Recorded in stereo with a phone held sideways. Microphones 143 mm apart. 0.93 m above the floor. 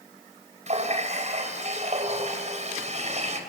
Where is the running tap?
50° right (ahead or behind), 3.5 m.